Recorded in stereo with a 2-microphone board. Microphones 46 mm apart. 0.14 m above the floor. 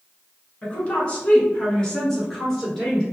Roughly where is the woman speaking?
Left.